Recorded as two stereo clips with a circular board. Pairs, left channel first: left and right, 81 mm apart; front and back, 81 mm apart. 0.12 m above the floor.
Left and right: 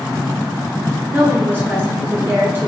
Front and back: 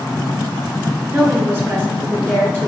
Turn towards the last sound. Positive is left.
turn(degrees=-140)